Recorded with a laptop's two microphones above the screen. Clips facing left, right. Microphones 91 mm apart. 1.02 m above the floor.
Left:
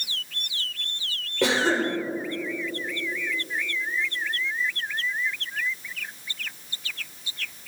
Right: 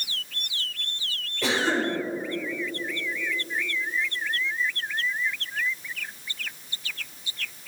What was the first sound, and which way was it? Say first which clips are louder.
A cough: left 2 dB; 70° left (ahead or behind).